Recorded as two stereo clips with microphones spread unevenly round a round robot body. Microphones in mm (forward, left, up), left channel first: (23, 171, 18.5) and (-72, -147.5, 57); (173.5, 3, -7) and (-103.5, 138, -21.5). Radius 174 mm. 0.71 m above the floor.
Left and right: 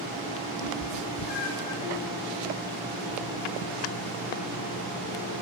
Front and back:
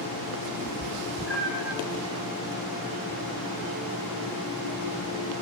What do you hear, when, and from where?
0.6 s a cat meowing: 85° left, 1.4 m; by 1.8 s 30° left, 0.8 m